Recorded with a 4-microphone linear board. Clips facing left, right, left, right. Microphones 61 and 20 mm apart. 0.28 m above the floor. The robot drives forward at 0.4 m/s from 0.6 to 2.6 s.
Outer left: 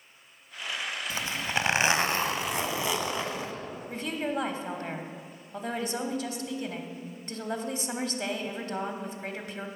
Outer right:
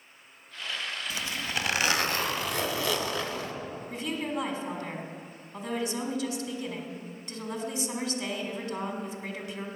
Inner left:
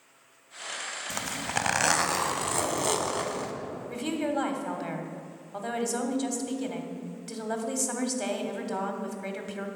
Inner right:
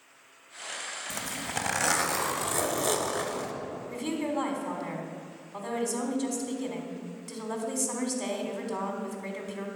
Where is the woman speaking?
40° left (ahead or behind), 1.5 m.